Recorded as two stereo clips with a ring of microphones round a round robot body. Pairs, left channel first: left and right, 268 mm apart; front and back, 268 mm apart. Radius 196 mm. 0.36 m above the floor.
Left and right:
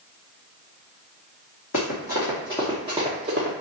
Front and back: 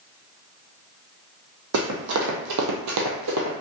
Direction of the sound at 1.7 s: 150° left.